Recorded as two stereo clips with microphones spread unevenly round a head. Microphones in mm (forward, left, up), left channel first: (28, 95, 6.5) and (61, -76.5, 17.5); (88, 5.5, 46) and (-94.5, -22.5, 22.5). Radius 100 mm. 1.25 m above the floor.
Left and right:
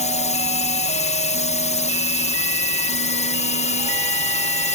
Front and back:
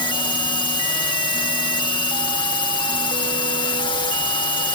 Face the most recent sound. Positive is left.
turn(degrees=70)